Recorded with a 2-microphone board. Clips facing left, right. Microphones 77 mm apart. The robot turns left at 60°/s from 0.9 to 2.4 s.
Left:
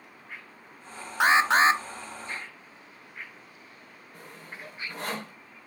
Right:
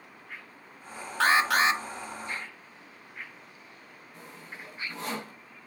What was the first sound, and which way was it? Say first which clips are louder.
An alarm: left 3 dB; 155° left.